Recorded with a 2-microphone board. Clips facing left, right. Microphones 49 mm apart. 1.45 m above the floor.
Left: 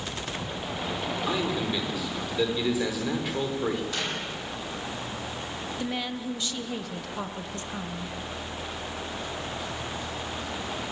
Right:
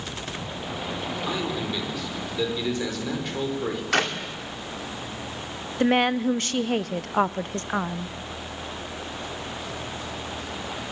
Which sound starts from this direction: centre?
A man speaking, at 1.3 s.